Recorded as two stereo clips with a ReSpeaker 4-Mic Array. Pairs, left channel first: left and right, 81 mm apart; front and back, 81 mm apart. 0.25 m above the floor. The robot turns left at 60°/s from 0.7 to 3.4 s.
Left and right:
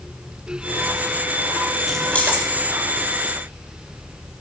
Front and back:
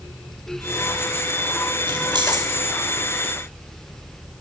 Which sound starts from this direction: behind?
Keys jangling, at 1.9 s.